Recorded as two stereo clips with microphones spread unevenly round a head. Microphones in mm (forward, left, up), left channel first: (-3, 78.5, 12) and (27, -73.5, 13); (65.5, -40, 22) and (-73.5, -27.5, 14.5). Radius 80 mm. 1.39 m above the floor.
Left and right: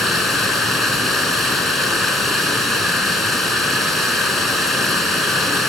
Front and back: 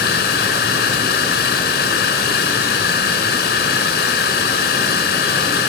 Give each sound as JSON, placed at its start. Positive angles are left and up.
{"t": 0.0, "sound": "running water", "azimuth_deg": 10, "distance_m": 5.5}